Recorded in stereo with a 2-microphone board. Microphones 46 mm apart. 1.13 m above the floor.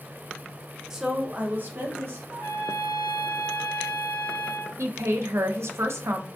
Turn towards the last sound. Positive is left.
turn(degrees=-75)  # may be behind; listen again after turning